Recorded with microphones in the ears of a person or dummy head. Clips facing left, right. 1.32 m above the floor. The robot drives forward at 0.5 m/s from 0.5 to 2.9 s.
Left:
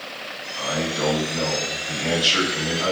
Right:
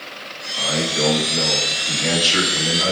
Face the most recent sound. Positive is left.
turn(degrees=-20)  # may be behind; listen again after turning